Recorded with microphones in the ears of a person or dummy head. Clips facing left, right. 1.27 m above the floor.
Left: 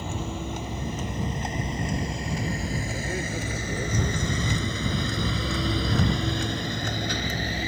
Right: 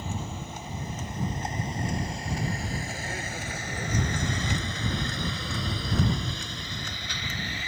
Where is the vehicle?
55° left (ahead or behind); by 7.7 s 35° left (ahead or behind).